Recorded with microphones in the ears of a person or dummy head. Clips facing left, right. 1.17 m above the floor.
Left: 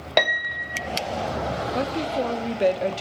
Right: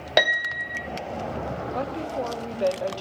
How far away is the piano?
About 0.5 m.